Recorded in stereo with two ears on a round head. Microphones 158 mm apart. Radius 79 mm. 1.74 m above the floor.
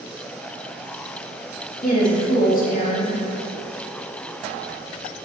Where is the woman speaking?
55° left (ahead or behind), 3 m.